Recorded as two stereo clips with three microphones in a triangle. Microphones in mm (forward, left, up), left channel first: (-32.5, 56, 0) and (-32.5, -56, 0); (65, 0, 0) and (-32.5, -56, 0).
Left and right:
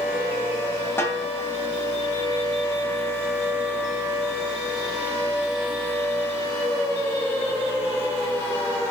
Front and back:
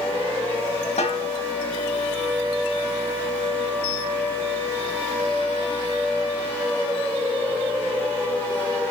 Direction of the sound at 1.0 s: 20° left.